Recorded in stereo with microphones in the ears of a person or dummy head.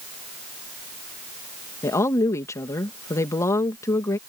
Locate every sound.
1.8 s a woman speaking: 15° left (ahead or behind)